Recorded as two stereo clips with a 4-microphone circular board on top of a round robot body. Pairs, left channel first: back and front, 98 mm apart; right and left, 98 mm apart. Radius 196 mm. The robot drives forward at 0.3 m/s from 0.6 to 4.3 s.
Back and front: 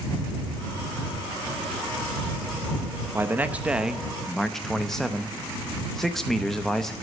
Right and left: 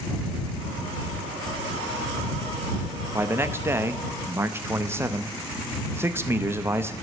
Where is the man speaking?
45° left, 0.9 m; by 6.9 s 100° left, 0.9 m.